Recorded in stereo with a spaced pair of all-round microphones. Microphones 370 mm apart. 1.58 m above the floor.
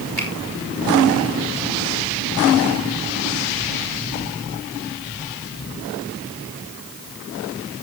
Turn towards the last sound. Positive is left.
turn(degrees=-85)